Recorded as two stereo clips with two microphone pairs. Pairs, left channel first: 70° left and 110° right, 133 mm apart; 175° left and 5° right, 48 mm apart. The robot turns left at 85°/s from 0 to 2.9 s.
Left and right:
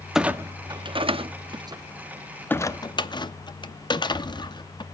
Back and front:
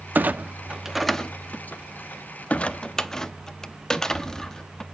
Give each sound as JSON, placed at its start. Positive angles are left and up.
{"t": 0.1, "sound": "a clunk", "azimuth_deg": -25, "distance_m": 0.6}